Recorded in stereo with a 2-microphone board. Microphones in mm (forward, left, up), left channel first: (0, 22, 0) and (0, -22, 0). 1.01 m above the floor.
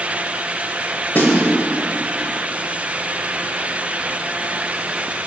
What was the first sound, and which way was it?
A snare drum, 50° left (ahead or behind).